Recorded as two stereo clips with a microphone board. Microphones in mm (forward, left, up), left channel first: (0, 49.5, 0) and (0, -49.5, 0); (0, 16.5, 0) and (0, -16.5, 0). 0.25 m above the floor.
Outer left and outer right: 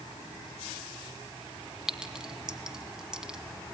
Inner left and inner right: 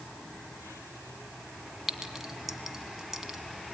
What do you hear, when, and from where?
1.9 s a clink: 10° right (ahead or behind), 1.6 m